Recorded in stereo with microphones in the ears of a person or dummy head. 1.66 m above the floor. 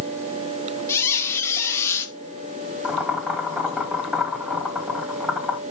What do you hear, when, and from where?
0.9 s a squeak: 15° left (ahead or behind), 1.4 m
2.8 s boiling: 5° right (ahead or behind), 2.5 m